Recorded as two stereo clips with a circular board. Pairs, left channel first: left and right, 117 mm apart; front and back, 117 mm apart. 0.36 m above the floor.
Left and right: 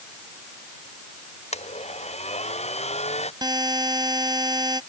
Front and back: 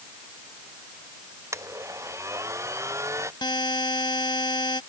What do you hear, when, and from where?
1.5 s a blender: 115° left
3.4 s a buzzer: 40° right